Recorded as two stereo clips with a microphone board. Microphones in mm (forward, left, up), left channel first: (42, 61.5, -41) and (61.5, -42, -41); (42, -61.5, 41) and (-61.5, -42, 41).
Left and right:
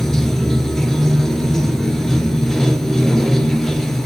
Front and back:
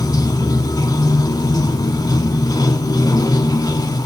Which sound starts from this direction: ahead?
Running water, at 0.0 s.